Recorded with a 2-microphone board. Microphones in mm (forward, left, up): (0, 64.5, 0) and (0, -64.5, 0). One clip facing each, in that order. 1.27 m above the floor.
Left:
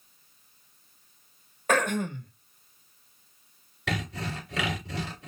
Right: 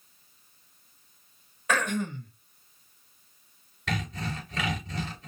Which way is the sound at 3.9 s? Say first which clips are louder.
Even; 85° left.